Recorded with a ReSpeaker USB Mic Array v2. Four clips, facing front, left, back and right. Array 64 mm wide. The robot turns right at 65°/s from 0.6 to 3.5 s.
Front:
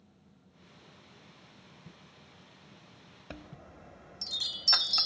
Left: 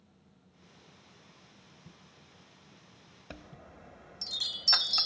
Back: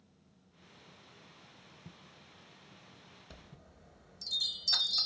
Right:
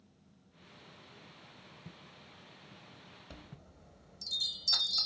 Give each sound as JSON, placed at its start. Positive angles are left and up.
{"t": 1.9, "sound": "footsteps", "azimuth_deg": -160, "distance_m": 1.8}
{"t": 3.3, "sound": "a chime", "azimuth_deg": 35, "distance_m": 0.5}